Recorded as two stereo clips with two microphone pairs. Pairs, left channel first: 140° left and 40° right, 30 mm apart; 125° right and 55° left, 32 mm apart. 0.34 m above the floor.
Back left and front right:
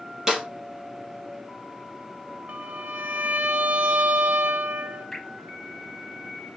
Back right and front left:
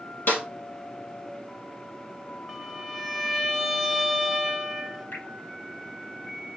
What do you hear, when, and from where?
0.3 s a snare drum: 110° right, 4 m
2.5 s a violin: 30° right, 0.9 m
5.1 s dripping: 135° right, 4.5 m